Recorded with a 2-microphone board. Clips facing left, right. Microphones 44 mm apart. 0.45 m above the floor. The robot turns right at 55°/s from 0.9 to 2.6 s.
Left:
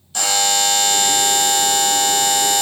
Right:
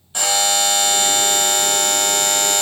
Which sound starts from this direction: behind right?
A buzzer, at 0.1 s.